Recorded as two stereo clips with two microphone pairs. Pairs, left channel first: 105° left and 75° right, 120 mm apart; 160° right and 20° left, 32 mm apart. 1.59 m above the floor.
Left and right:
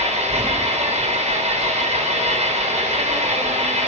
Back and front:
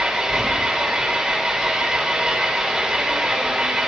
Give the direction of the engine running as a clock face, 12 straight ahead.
2 o'clock.